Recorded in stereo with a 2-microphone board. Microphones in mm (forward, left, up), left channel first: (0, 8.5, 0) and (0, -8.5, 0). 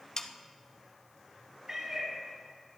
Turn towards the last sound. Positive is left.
turn(degrees=-25)  # may be behind; listen again after turning